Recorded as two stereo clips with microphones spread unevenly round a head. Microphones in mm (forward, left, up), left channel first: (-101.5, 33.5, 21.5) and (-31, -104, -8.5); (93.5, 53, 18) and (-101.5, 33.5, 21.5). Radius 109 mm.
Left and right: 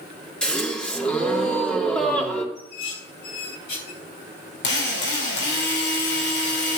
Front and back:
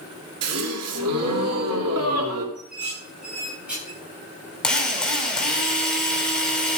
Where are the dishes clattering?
100° left, 8 m.